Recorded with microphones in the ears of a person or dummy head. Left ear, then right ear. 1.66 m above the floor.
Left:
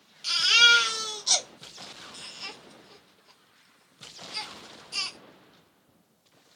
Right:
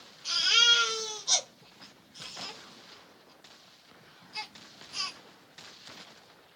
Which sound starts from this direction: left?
A baby crying, at 0.2 s.